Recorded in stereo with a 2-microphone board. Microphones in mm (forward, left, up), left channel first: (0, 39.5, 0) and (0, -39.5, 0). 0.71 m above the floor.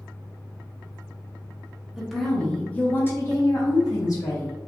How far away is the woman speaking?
About 1.0 m.